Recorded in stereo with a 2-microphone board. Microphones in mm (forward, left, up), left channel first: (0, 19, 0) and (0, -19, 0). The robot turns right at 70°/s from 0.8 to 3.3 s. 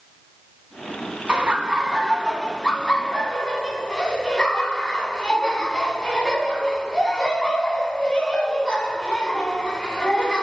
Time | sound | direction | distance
1.3 | laughter | 25° right (ahead or behind) | 1.2 m